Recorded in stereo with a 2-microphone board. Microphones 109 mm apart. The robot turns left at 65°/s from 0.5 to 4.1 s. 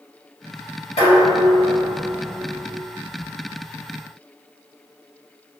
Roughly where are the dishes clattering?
Left.